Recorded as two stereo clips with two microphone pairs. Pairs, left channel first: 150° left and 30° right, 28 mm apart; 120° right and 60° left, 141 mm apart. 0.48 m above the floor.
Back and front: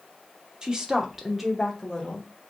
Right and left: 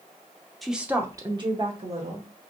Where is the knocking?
I don't hear knocking.